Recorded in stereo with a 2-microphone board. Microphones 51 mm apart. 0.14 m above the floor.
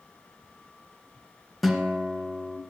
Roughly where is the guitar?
Centre.